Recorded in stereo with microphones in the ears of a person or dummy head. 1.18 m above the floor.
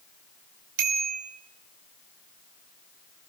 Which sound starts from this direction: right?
A bicycle bell, at 0.8 s.